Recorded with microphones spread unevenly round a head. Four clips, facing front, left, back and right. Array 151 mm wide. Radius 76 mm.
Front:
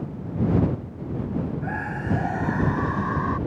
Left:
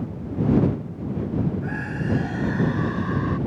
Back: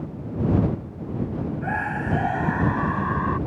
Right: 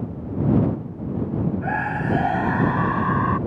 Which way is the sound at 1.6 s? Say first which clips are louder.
Right 4 dB, back 3 dB; 115° right.